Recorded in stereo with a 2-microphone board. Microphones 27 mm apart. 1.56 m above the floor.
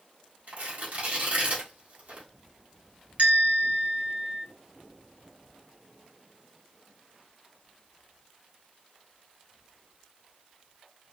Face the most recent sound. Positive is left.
turn(degrees=-55)  # may be behind; listen again after turning